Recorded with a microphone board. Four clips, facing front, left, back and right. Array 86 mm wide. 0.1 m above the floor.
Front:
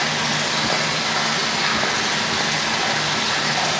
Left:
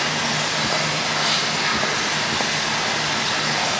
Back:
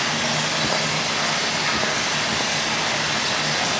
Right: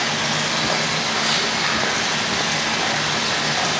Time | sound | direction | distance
0.0 | running water | 50° right | 4 m